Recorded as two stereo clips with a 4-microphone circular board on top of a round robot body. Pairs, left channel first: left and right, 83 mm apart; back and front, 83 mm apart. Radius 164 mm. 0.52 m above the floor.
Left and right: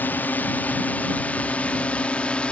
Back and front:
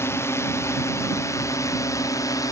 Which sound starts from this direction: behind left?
A drone, at 0.0 s.